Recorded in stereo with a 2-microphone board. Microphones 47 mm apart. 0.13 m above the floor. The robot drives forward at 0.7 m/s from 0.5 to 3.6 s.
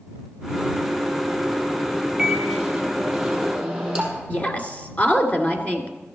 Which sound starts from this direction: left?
A woman speaking, at 4.3 s.